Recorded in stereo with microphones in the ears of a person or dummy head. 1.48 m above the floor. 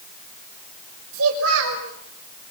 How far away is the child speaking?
About 6.5 m.